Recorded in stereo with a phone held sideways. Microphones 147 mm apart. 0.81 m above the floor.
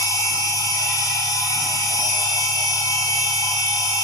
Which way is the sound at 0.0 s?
20° left (ahead or behind).